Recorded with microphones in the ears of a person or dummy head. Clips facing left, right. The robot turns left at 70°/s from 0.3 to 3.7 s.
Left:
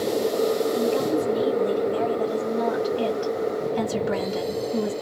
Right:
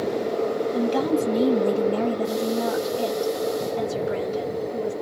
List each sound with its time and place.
0.7 s a woman speaking: 50° right, 1.6 m; by 4.9 s 105° left, 1.6 m